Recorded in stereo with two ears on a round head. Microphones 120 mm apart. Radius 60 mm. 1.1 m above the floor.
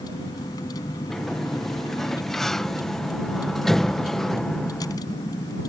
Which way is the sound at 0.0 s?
30° left (ahead or behind).